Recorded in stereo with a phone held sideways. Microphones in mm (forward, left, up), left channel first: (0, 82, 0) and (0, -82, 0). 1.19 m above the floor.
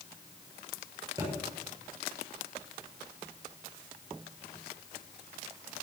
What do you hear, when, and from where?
1.2 s a thud: 20° right (ahead or behind), 8 m